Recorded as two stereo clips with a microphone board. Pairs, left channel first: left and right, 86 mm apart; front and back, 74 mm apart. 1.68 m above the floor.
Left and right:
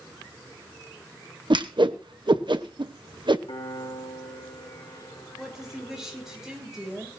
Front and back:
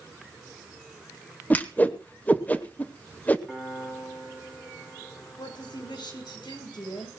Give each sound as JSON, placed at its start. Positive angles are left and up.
{"t": 1.5, "sound": "a whoosh", "azimuth_deg": -70, "distance_m": 1.1}
{"t": 3.5, "sound": "a piano", "azimuth_deg": 80, "distance_m": 4.5}
{"t": 5.4, "sound": "a woman speaking", "azimuth_deg": -5, "distance_m": 7.0}